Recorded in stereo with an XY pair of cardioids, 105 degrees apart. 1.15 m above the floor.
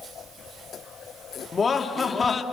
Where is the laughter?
30° left, 2.5 m.